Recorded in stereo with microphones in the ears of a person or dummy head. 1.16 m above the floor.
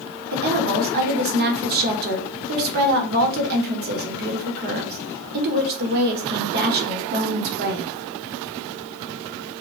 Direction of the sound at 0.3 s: 50° right (ahead or behind).